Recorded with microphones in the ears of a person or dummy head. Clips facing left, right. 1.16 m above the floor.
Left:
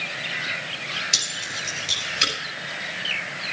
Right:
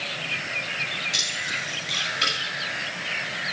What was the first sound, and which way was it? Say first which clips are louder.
Keys jangling: right 1 dB; 60° left (ahead or behind).